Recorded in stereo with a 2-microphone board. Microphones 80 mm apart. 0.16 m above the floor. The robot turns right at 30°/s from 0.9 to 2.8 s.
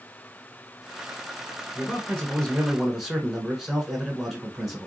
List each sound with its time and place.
1.8 s a man speaking: 155° left, 1.7 m; by 4.9 s 175° right, 1.7 m